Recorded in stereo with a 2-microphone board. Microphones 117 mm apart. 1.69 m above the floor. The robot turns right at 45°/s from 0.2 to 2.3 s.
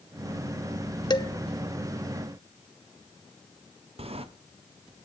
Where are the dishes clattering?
40° left (ahead or behind), 0.8 m; by 1.3 s 35° left (ahead or behind), 0.8 m.